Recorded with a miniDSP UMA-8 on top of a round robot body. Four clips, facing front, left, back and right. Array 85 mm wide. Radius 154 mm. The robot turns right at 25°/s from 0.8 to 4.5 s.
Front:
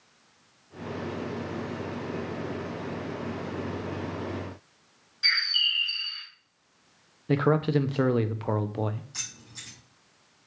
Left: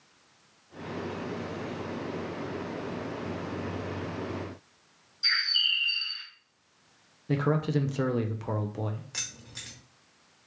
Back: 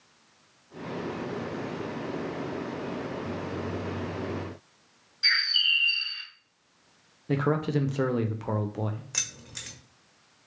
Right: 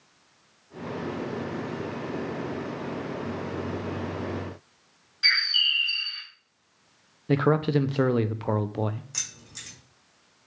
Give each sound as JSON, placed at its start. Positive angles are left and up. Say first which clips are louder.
{"t": 5.2, "sound": "a bird", "louder": "right 4 dB, back 1 dB", "azimuth_deg": -85, "distance_m": 1.7}
{"t": 7.3, "sound": "a man speaking", "louder": "right 5 dB, front 3 dB", "azimuth_deg": -60, "distance_m": 0.6}
{"t": 9.1, "sound": "keys jangling", "louder": "left 1 dB, back 4 dB", "azimuth_deg": 170, "distance_m": 1.6}